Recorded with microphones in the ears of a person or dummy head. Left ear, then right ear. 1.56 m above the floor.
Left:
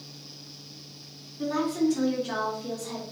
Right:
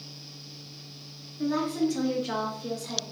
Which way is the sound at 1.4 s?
15° left (ahead or behind).